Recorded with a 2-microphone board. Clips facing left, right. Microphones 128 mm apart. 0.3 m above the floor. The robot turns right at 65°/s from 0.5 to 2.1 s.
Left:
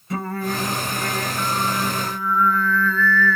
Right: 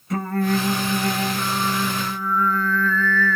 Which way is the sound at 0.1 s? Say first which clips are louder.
Right 4 dB; straight behind.